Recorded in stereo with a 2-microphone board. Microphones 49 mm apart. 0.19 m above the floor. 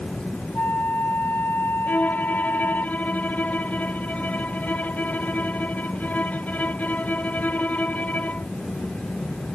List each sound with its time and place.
0.6 s a flute: 40° left (ahead or behind)
1.9 s a violin: 30° left (ahead or behind)